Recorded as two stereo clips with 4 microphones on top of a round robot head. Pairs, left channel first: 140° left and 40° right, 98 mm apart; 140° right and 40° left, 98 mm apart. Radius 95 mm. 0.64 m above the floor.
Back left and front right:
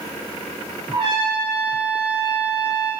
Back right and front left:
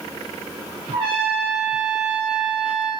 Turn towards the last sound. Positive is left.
turn(degrees=10)